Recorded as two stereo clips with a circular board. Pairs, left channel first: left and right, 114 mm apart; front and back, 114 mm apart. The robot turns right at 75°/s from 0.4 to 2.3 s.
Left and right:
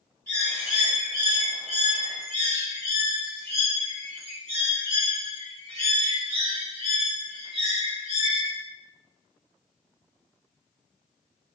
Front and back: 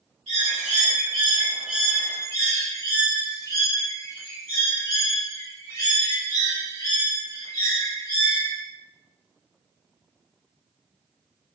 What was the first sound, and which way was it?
A bird, 160° left.